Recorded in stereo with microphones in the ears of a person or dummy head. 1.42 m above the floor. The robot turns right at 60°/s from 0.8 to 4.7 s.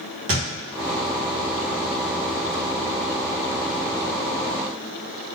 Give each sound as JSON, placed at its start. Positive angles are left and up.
{"t": 0.3, "sound": "a thud", "side_deg": -25, "distance_m": 1.1}